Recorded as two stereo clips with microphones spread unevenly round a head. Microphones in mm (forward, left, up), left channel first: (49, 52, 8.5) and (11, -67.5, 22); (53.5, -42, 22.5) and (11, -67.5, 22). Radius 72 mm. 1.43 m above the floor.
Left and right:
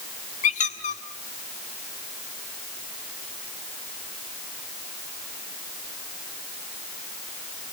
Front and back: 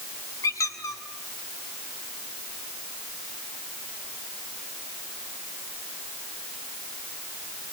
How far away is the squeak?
About 1.6 m.